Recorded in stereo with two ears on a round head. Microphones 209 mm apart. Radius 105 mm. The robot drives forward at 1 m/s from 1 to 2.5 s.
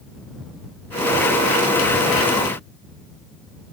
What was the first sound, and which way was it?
Only background noise.